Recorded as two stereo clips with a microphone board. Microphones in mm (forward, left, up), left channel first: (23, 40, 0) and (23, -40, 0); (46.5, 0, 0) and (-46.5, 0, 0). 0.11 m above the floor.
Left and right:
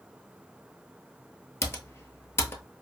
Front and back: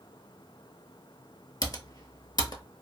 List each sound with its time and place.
1.6 s typing on a keyboard: 35° left, 0.6 m